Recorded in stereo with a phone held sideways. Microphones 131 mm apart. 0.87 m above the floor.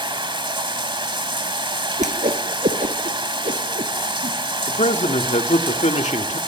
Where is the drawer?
I don't hear a drawer.